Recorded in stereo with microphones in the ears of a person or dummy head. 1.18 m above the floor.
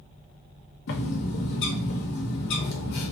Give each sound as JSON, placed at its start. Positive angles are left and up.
{"t": 0.9, "sound": "a bird", "side_deg": 60, "distance_m": 0.8}